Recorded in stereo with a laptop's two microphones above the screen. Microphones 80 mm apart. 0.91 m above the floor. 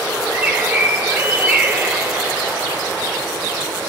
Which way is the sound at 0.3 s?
20° right (ahead or behind).